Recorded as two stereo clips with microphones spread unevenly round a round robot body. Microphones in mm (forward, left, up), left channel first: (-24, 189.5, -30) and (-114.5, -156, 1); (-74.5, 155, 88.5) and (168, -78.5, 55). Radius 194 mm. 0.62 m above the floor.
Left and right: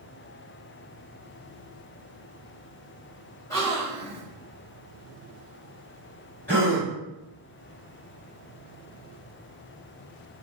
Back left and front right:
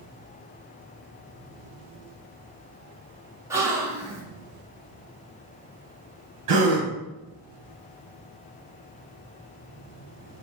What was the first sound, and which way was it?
A gasp, 15° left.